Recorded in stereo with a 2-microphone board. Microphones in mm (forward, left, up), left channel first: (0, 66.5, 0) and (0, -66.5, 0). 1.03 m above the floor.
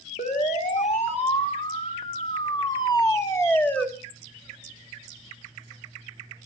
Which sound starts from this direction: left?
A siren, at 0.2 s.